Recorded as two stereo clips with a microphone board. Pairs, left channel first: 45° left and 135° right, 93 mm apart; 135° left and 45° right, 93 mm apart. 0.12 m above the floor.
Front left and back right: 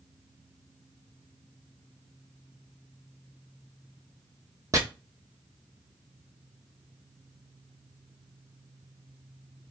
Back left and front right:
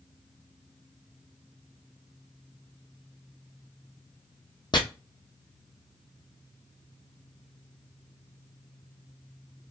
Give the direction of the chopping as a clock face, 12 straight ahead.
6 o'clock.